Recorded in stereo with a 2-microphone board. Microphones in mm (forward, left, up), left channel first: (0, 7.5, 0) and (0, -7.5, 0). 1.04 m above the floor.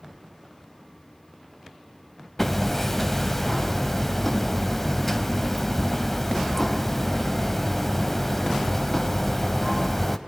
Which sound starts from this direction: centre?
Hammering, at 2.4 s.